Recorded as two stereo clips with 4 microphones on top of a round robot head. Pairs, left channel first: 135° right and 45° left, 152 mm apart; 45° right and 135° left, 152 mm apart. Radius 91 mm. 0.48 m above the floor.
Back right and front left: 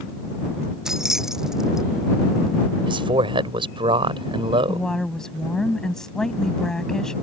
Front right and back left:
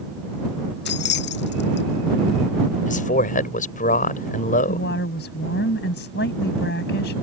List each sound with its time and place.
0.8 s keys jangling: 45° right
2.9 s a man speaking: 10° right
4.7 s a woman speaking: 50° right